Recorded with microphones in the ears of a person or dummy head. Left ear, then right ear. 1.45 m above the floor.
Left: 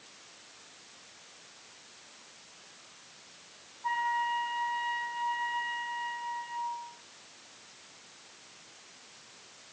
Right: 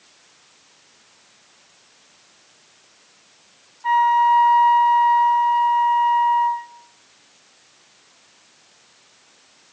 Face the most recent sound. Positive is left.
turn(degrees=-45)  # may be behind; listen again after turning